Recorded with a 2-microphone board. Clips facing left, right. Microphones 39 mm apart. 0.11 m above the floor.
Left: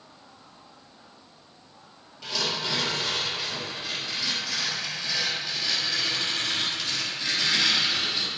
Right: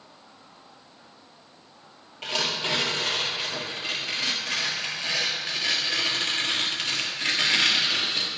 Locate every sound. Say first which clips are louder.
2.2 s tearing paper: right 2 dB; 50° right (ahead or behind), 1.3 m